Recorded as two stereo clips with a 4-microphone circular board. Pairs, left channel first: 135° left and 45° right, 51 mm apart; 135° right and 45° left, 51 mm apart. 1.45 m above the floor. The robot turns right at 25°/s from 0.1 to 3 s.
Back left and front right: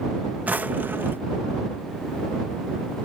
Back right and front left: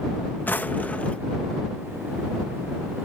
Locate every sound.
0.5 s a drawer: 95° right; by 1.2 s 75° right